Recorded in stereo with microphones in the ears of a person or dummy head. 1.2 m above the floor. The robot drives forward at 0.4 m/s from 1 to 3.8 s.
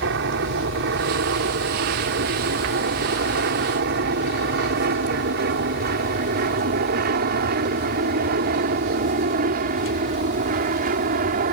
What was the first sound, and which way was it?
An aircraft, 60° right (ahead or behind).